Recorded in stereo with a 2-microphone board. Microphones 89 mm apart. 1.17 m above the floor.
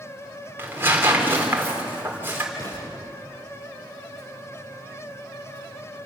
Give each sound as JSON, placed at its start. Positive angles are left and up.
{"t": 0.6, "sound": "tearing paper", "side_deg": -25, "distance_m": 3.0}
{"t": 2.5, "sound": "an explosion", "side_deg": 50, "distance_m": 8.5}